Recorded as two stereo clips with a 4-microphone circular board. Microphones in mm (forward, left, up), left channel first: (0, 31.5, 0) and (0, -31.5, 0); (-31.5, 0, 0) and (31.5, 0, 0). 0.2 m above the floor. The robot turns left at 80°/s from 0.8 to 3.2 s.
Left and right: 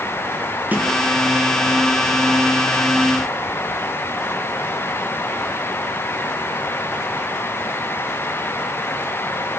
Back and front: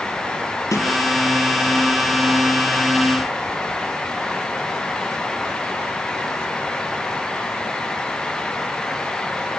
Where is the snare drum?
155° right, 5 m; by 0.9 s 160° right, 5 m.